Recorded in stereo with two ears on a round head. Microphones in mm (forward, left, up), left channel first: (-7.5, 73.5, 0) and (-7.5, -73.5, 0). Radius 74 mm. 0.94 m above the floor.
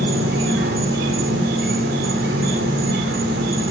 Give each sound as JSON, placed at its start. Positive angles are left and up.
{"t": 0.0, "sound": "an insect", "side_deg": -75, "distance_m": 3.5}